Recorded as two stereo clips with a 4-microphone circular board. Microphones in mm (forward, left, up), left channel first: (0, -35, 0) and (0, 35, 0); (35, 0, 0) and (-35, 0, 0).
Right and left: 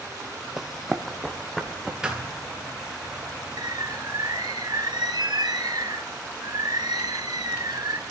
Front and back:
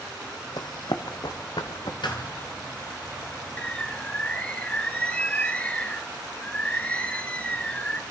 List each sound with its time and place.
0.6 s running footsteps: 5° left, 0.9 m; by 1.9 s 5° right, 2 m
2.0 s a thud: 10° left, 2 m
3.6 s a bird: 75° left, 0.8 m